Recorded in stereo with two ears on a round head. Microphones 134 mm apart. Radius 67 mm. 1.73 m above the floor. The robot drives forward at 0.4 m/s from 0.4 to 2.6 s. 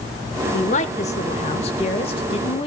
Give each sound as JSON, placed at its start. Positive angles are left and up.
{"t": 0.5, "sound": "a woman speaking", "side_deg": 50, "distance_m": 1.9}